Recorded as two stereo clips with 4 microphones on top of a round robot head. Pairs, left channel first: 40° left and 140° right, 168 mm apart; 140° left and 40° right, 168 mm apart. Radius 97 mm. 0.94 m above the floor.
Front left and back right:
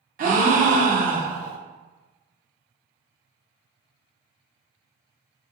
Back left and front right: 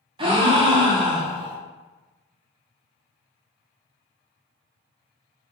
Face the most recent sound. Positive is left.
turn(degrees=-100)